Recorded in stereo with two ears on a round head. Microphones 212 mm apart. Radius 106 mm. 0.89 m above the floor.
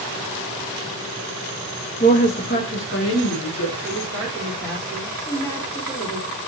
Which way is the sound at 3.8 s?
10° left (ahead or behind).